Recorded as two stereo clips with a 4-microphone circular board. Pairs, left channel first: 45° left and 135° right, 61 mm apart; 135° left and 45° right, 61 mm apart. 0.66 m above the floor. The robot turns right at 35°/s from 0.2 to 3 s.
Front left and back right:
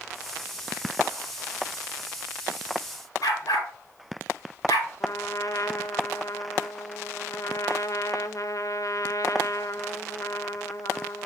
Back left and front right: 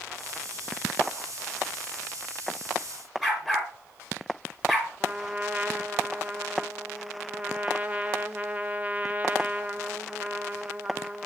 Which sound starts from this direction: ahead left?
A dog barking, at 3.2 s.